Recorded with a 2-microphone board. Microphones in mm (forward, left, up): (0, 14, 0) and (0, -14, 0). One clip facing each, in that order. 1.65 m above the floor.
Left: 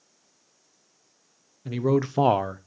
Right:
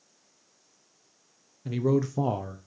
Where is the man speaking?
10° left (ahead or behind), 0.9 m; by 2.7 s 50° left (ahead or behind), 0.8 m.